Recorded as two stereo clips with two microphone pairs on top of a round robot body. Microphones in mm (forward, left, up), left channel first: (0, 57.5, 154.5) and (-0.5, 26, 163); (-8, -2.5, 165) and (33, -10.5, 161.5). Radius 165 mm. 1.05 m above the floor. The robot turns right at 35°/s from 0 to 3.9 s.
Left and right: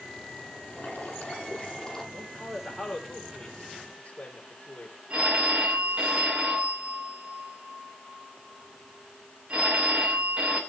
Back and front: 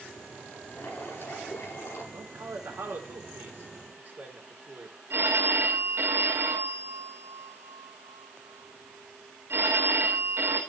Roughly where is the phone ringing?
Ahead right.